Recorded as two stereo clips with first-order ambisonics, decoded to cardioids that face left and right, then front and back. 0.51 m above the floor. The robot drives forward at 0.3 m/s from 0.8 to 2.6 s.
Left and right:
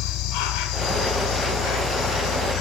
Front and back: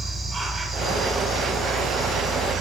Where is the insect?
110° left, 1.0 m; by 2.6 s 135° left, 1.2 m.